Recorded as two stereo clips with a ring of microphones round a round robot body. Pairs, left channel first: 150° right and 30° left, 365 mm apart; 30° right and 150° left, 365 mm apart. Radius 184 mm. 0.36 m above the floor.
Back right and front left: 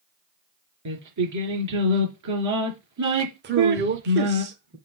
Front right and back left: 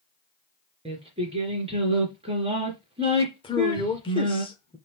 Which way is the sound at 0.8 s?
75° left.